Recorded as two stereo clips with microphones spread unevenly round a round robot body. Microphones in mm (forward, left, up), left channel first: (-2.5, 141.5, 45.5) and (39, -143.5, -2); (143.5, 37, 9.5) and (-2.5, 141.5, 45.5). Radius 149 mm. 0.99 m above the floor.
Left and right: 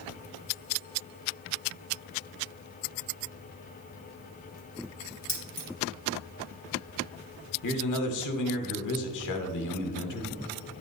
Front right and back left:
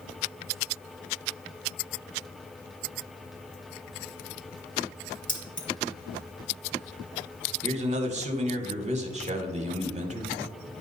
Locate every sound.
5.3 s keys jangling: 10° left, 3 m
7.6 s a man speaking: 90° left, 1.2 m